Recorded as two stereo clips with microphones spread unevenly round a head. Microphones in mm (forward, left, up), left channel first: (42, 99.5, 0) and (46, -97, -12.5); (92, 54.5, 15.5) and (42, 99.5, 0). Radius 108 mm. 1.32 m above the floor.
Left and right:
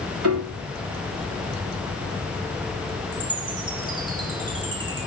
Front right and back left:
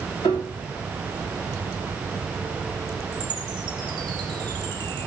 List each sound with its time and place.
0.2 s a piano: 90° right, 3.5 m
3.1 s a chime: 160° right, 5 m